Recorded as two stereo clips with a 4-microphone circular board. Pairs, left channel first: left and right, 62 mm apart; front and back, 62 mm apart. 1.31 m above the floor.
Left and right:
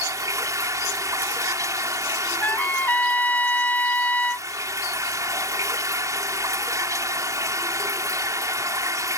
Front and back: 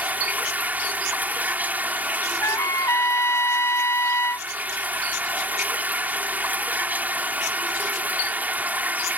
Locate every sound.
0.0 s running water: 115° right
2.4 s a trumpet: 30° left